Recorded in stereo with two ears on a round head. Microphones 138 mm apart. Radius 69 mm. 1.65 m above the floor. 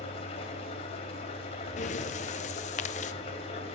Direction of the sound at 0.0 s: 45° left (ahead or behind).